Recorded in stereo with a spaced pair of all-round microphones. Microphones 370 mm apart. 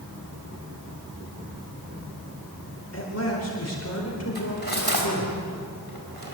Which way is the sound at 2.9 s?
40° left (ahead or behind).